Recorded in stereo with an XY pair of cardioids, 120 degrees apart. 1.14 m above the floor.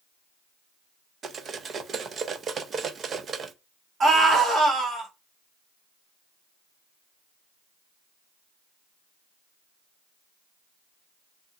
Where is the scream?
45° right, 1.3 m.